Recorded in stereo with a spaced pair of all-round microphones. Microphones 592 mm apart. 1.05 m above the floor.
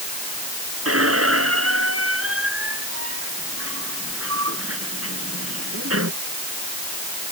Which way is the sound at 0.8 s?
20° right (ahead or behind).